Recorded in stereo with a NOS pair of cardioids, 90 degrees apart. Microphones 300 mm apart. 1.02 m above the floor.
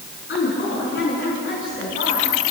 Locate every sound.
0.3 s a woman speaking: 45° left, 9.5 m; by 2.4 s 40° left, 7.5 m